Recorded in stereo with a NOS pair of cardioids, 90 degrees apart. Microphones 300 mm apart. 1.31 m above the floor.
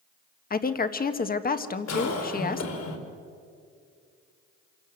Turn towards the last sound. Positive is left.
turn(degrees=65)